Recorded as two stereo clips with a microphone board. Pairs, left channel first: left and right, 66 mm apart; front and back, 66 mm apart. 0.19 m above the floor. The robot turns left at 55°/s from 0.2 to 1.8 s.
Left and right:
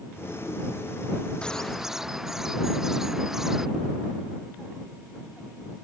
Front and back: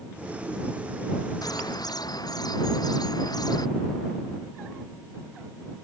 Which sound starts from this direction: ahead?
A bird, at 1.4 s.